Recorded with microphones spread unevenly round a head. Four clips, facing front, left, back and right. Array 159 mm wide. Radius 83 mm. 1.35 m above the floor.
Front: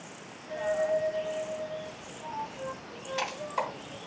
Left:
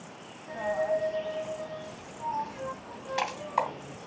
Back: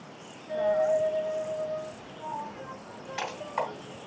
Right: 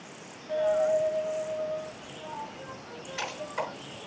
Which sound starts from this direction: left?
A dropped coin, at 0.5 s.